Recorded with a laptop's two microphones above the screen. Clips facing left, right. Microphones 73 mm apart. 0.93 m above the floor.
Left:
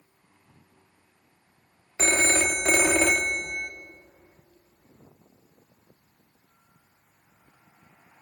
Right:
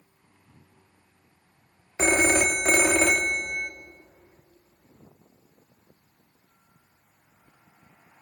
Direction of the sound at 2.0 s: 15° right (ahead or behind).